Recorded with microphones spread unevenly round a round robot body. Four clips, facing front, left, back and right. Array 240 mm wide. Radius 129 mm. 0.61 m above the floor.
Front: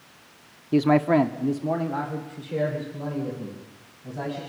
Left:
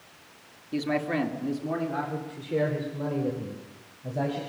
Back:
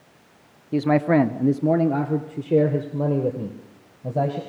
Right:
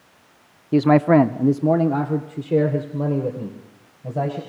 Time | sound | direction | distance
0.7 | a man speaking | 70° right | 0.9 m